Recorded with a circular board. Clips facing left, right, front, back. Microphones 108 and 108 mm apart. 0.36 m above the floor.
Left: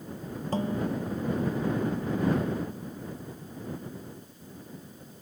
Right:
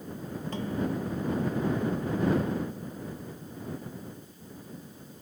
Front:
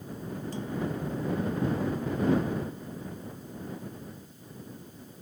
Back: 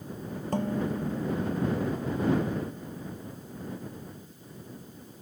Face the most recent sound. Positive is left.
turn(degrees=145)